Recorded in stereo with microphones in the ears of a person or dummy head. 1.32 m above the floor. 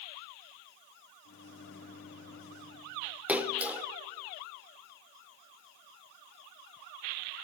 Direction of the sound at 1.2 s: 60° left (ahead or behind).